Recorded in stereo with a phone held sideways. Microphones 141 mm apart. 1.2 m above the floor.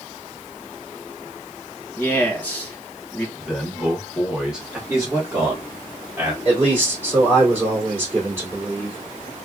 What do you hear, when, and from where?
2.0 s a man speaking: 10° left (ahead or behind), 1.7 m
3.4 s a man speaking: 5° right (ahead or behind), 1.4 m
4.9 s a man speaking: 20° right (ahead or behind), 1.4 m
6.5 s a man speaking: 20° right (ahead or behind), 2.0 m